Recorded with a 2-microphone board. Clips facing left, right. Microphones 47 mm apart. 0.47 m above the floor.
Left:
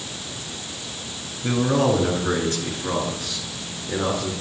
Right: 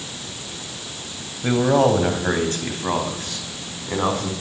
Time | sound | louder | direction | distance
1.4 | a man speaking | right 3 dB | 40° right (ahead or behind) | 3 m